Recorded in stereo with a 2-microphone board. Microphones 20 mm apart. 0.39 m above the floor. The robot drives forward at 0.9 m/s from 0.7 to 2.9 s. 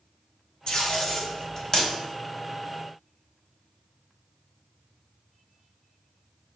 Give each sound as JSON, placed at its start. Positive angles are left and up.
{"t": 0.7, "sound": "tape being pulled", "side_deg": 50, "distance_m": 2.0}